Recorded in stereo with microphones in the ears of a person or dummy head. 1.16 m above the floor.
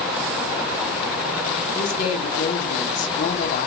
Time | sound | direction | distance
1.8 | a woman speaking | 45° left (ahead or behind) | 0.7 m